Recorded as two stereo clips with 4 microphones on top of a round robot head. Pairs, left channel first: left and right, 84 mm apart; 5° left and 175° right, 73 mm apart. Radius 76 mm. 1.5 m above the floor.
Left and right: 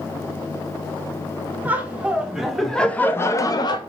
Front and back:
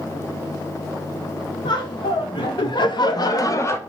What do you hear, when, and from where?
1.6 s laughter: 20° right, 1.1 m; by 3.8 s 60° left, 0.6 m